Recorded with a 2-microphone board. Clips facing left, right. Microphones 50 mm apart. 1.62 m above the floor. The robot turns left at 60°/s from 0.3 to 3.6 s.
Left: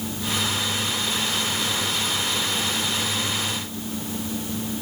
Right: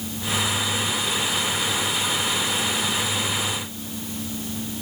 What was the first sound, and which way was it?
Only background noise.